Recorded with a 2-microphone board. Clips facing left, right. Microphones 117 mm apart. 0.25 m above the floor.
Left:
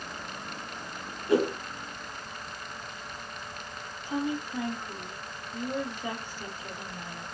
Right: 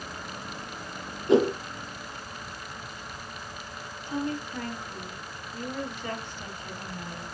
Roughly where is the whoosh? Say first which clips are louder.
Right 4 dB; right.